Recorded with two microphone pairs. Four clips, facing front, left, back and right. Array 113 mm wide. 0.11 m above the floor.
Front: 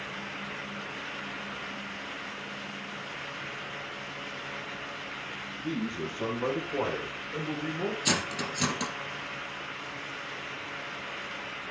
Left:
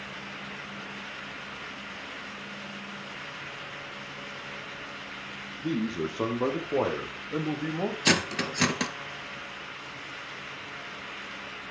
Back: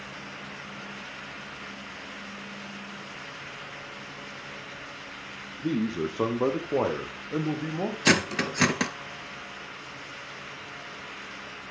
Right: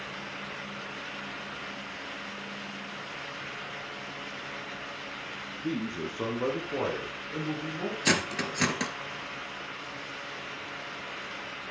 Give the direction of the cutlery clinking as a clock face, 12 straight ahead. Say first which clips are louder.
Even, back 6 dB; 6 o'clock.